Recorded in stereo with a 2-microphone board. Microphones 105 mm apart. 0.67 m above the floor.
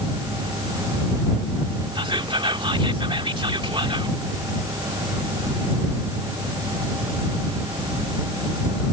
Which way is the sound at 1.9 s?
55° right (ahead or behind).